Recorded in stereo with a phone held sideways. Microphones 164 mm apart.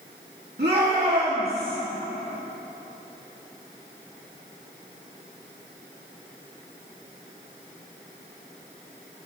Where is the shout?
80° right, 2.5 m; by 1.8 s 65° right (ahead or behind), 3.5 m.